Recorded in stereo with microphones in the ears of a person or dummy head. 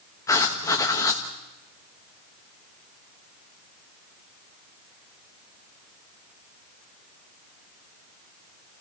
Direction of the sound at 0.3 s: 15° left (ahead or behind).